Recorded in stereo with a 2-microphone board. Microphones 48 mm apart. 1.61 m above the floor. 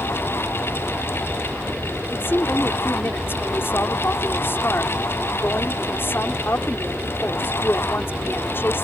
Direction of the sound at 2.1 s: 50° left (ahead or behind).